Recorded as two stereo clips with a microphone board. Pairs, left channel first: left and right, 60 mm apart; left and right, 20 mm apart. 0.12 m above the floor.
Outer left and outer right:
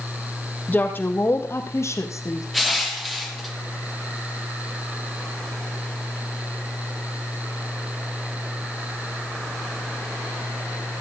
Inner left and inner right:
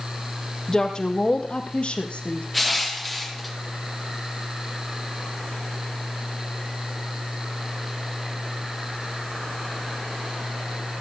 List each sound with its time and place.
0.7 s a woman speaking: 30° left (ahead or behind), 3.5 m; by 2.4 s 60° left (ahead or behind), 4.5 m
2.5 s crushing: centre (ahead or behind), 3 m